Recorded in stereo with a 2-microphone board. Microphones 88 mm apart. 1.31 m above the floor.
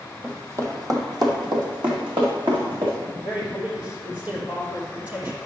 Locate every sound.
0.2 s running footsteps: 20° right (ahead or behind), 1.5 m; by 3.0 s 70° right (ahead or behind), 4 m
3.2 s a man speaking: 25° right (ahead or behind), 3.5 m